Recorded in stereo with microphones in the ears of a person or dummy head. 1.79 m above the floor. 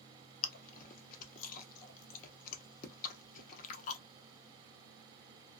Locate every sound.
0.4 s chewing: 45° left (ahead or behind), 0.6 m